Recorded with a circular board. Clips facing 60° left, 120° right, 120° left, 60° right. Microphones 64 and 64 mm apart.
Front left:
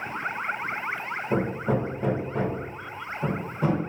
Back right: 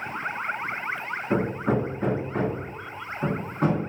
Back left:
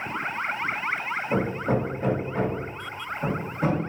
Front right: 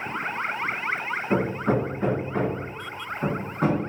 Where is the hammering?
90° right, 1.5 m.